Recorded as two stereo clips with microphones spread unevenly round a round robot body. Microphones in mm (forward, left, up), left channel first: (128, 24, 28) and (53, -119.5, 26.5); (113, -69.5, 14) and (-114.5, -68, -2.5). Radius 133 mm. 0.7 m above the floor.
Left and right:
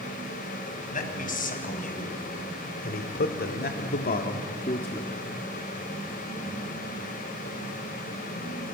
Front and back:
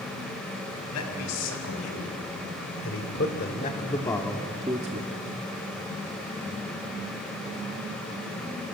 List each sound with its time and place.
0.9 s a man speaking: 30° left, 5 m; by 5.1 s 135° left, 1.6 m